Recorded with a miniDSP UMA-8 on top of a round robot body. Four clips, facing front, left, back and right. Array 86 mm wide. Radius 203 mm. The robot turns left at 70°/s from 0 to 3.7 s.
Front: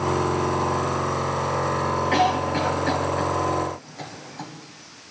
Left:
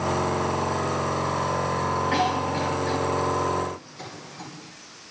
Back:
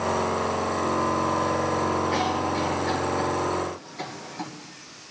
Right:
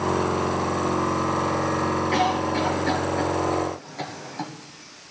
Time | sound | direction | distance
2.1 | a cough | 30° left | 4 m